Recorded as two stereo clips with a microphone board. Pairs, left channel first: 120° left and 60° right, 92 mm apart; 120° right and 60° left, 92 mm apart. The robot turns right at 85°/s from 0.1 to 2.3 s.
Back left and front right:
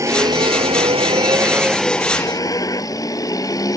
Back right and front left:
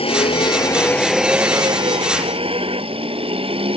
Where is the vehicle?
115° right; by 3.8 s 70° left.